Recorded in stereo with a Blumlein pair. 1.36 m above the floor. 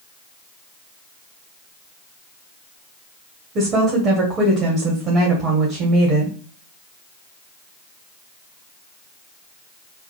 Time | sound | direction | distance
3.5 | a woman speaking | 30° right | 1.4 m